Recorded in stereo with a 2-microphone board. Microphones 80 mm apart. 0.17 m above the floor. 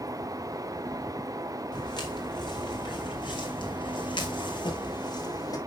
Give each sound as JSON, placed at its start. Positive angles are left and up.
{"t": 1.7, "sound": "footsteps", "side_deg": 60, "distance_m": 4.0}